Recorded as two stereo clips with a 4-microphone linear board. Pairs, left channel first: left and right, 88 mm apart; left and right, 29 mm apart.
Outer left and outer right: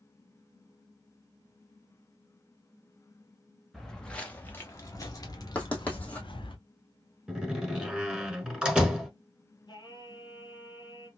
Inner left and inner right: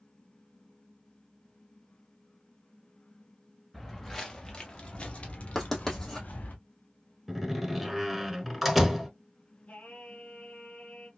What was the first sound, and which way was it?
Footsteps, centre (ahead or behind).